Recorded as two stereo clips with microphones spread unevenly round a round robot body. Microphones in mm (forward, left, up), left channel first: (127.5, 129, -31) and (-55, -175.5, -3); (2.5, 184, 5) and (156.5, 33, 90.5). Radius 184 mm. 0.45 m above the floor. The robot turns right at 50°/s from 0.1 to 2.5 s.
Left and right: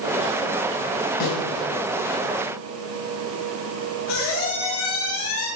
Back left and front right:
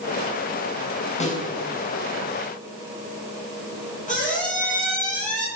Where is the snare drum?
90° left, 3.5 m; by 1.4 s 100° left, 3.5 m.